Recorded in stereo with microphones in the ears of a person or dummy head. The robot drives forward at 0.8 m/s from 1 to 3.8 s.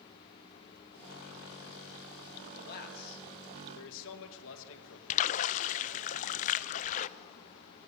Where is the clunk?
I don't hear a clunk.